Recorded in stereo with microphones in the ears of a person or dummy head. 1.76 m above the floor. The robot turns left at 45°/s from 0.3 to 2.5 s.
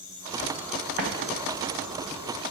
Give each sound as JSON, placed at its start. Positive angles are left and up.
{"t": 1.0, "sound": "an explosion", "side_deg": -55, "distance_m": 1.5}